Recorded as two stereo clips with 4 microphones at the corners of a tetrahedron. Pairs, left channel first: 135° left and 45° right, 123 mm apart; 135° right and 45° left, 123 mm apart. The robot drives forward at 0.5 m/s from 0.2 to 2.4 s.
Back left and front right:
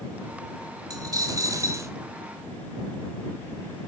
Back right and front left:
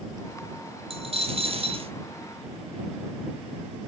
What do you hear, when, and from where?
0.9 s a dropped coin: 15° left, 1.7 m; by 1.9 s 20° left, 1.3 m